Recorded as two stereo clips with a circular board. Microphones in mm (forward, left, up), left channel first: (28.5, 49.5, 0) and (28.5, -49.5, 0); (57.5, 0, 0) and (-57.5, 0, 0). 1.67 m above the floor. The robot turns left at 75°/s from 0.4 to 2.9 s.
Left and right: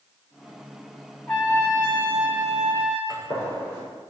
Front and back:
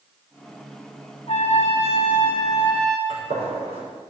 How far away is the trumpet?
About 3 m.